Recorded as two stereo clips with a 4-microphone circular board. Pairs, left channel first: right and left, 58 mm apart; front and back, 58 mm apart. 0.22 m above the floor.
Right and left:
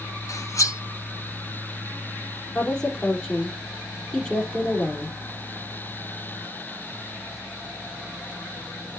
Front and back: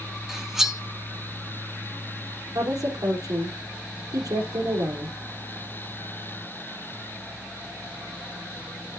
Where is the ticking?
I don't hear ticking.